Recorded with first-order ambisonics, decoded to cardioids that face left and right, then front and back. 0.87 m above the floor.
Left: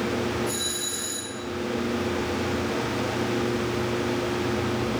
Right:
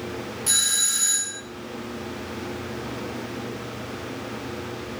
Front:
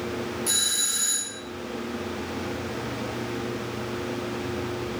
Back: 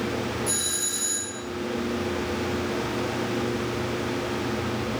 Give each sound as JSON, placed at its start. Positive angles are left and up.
{"t": 0.5, "sound": "a doorbell", "azimuth_deg": -65, "distance_m": 2.0}